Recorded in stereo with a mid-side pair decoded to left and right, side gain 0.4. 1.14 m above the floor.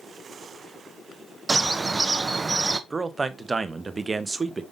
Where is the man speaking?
35° right, 0.7 m.